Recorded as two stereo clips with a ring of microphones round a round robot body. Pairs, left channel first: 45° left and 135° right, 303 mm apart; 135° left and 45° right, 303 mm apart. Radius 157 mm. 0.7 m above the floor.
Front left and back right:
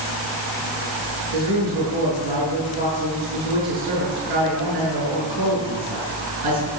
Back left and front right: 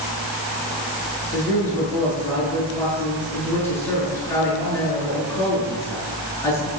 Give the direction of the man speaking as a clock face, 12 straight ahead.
5 o'clock.